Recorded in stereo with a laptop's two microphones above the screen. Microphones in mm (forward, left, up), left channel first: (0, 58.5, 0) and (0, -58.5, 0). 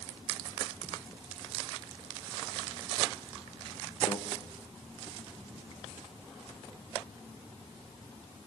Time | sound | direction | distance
4.1 | a microwave | 45° left (ahead or behind) | 1.0 m